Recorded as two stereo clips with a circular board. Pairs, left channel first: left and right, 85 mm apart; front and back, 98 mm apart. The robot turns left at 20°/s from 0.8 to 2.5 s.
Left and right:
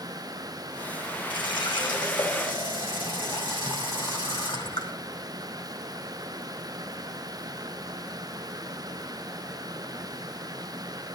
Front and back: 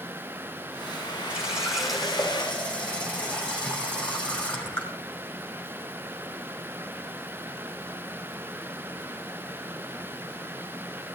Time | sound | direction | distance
1.3 | a running tap | 100° left | 2 m